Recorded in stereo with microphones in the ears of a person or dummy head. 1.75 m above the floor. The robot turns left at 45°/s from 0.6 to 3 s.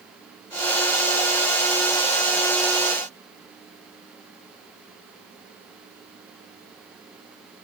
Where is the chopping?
No chopping in this recording.